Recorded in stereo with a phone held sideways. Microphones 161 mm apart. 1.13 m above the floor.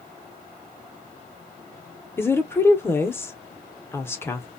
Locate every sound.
2.2 s a woman speaking: 15° left (ahead or behind), 0.6 m